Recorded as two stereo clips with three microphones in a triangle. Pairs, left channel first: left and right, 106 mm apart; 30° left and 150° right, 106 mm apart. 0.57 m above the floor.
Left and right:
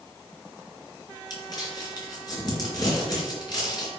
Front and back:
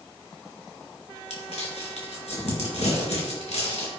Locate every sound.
1.3 s crumpling: 40° left, 4 m